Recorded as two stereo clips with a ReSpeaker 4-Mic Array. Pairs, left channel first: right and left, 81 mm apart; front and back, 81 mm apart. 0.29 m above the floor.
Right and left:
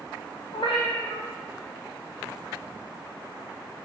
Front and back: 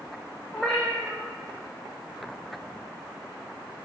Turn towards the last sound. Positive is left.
turn(degrees=-85)